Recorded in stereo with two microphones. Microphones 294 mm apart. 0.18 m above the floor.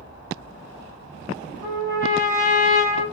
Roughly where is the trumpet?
Left.